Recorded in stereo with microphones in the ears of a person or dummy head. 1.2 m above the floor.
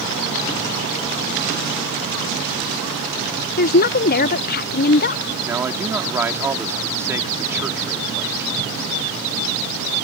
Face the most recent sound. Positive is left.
turn(degrees=-10)  # may be behind; listen again after turning